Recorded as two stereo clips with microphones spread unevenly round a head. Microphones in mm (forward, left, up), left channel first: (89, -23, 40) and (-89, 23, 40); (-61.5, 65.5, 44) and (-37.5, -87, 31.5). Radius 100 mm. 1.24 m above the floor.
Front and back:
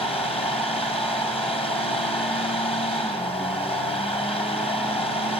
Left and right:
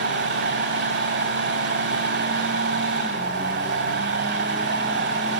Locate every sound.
0.0 s a fan: 75° right, 2.5 m